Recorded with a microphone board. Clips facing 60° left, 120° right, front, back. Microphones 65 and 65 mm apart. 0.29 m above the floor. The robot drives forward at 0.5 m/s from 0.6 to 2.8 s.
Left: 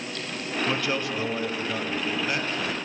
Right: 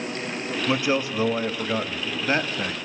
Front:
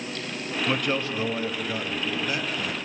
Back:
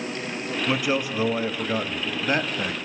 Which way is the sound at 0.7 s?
100° right.